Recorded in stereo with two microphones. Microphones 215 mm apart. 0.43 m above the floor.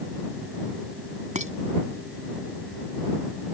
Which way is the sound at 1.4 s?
35° right (ahead or behind).